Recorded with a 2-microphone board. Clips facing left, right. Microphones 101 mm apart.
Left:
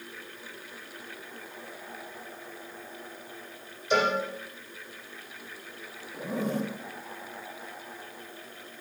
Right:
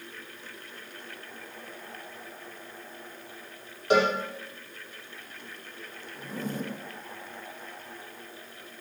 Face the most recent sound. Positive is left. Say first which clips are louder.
# left 5 dB
turn(degrees=60)  # may be behind; listen again after turning